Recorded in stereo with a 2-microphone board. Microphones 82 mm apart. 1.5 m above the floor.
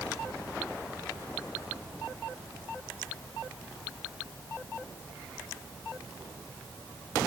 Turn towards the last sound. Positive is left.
No sound to turn to.